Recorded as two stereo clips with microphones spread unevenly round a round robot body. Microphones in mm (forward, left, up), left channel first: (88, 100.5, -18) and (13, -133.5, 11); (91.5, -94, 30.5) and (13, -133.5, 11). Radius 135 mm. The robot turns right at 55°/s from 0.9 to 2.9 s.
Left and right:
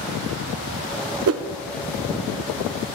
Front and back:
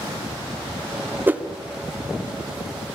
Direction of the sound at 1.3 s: 80° right.